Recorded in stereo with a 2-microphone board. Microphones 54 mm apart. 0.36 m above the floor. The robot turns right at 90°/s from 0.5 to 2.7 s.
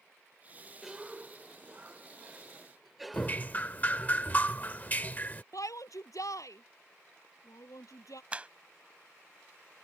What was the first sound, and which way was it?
A cough, 5° right (ahead or behind).